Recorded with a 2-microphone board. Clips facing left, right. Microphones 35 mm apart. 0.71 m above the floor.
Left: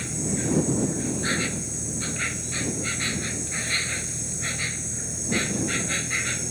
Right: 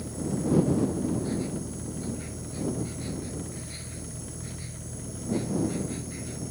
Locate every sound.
0.0 s an insect: 75° left (ahead or behind)